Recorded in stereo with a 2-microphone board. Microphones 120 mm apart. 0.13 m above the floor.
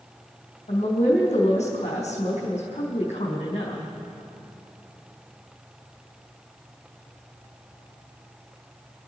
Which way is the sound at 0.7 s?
70° left (ahead or behind).